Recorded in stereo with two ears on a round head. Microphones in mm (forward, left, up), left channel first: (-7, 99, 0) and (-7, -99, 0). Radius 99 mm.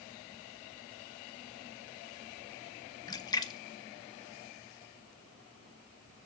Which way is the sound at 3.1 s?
20° left (ahead or behind).